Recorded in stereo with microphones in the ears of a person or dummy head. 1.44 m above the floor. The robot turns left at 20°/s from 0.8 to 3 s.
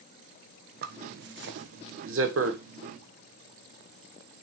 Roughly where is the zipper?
Right.